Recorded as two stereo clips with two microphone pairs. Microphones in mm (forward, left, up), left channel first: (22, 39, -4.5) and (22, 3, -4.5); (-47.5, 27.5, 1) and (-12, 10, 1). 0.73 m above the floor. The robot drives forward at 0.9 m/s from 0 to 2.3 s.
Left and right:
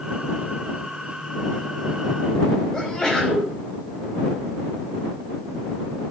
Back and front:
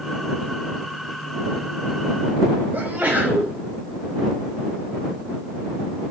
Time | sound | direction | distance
2.7 | a sneeze | 20° left | 5 m